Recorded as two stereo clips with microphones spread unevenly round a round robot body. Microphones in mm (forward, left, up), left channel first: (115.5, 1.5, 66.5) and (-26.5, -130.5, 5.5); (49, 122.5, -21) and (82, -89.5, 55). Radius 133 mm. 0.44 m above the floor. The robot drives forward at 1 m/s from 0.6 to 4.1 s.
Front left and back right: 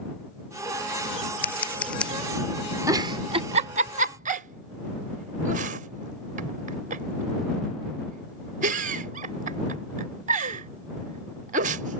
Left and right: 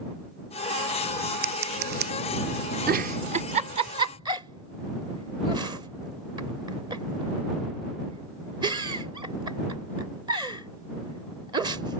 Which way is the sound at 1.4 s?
35° right.